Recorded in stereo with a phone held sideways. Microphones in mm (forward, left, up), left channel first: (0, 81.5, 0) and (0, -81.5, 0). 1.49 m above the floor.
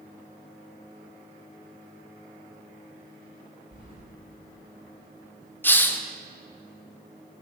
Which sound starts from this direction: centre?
A hiss, at 5.6 s.